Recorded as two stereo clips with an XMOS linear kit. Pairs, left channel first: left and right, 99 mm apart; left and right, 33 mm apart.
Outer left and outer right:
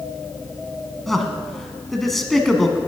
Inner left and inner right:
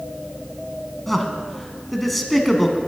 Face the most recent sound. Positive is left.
turn(degrees=0)  # may be behind; listen again after turning